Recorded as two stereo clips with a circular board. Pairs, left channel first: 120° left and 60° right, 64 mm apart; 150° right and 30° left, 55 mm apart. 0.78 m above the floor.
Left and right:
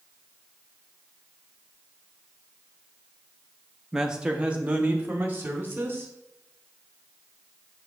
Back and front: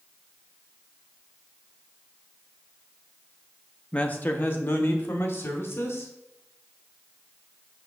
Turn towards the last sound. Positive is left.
turn(degrees=-120)